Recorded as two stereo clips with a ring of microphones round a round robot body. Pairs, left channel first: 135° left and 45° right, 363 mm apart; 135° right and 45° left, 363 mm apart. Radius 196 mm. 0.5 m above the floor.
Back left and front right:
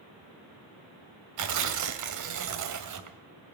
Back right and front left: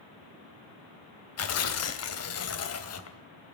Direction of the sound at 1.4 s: 85° right.